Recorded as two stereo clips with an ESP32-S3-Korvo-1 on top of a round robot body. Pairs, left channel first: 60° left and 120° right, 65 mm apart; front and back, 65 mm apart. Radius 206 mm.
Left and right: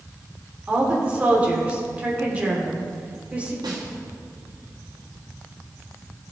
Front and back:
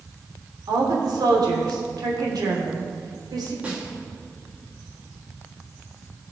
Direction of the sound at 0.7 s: 170° left.